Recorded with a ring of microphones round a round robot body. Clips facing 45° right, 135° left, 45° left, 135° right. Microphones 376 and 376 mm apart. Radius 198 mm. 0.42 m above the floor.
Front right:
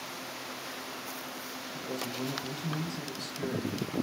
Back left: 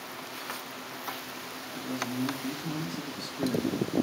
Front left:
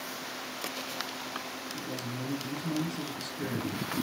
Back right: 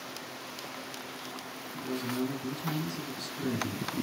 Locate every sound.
1.7 s a man speaking: 120° right, 4 m